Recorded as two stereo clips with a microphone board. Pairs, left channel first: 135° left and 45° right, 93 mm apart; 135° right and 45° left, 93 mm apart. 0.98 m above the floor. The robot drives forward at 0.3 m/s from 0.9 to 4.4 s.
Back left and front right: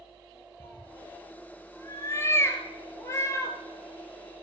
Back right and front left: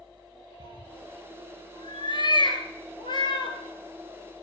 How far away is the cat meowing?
About 1.8 m.